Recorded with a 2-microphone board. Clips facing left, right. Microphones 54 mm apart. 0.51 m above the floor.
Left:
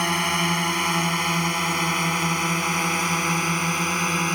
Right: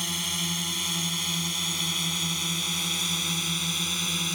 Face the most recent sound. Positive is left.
turn(degrees=45)  # may be behind; listen again after turning